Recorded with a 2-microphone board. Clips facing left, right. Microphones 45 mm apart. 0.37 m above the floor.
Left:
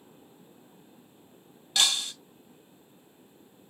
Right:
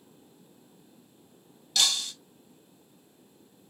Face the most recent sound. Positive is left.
turn(degrees=25)  # may be behind; listen again after turning